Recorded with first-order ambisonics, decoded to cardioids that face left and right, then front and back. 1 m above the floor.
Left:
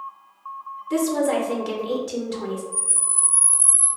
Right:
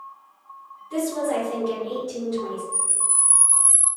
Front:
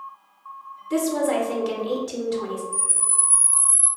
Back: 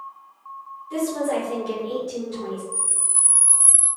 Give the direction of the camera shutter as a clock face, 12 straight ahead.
5 o'clock.